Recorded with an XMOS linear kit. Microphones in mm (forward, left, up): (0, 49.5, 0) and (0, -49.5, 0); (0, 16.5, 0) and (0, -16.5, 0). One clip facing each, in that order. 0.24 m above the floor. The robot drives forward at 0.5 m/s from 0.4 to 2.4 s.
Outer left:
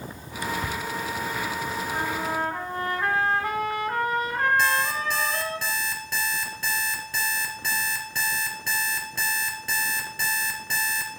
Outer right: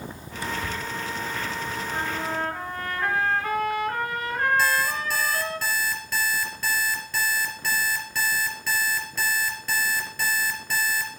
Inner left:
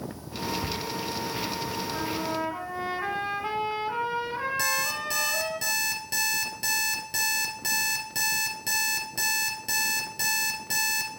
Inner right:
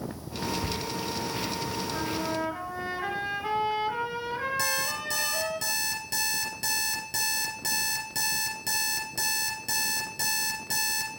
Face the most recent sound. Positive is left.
turn(degrees=15)  # may be behind; listen again after turning